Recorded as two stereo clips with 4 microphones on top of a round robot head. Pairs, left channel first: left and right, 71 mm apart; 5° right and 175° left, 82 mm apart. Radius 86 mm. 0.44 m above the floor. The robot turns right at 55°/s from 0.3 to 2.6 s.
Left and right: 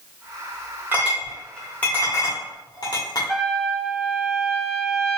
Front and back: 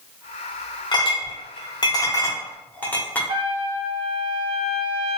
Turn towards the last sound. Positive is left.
turn(degrees=-175)